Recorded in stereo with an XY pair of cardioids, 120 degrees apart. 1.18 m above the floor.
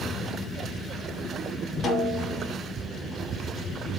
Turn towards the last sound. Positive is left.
turn(degrees=45)